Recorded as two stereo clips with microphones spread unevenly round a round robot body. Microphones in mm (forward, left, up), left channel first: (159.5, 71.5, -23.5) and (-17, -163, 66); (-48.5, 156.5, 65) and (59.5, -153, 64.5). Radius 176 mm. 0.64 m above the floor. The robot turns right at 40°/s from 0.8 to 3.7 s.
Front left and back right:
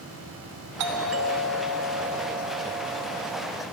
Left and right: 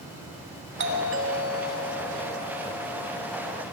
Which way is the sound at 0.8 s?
100° right.